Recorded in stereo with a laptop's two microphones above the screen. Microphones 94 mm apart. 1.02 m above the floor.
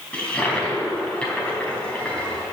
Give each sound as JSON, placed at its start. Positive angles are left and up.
{"t": 0.1, "sound": "a toilet flushing", "side_deg": 10, "distance_m": 4.0}